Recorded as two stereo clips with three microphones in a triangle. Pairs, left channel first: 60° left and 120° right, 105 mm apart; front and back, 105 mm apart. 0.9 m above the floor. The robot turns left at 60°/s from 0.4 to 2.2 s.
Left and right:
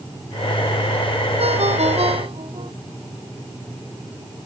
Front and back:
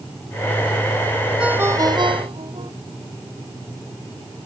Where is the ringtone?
100° right; by 2.7 s 145° right.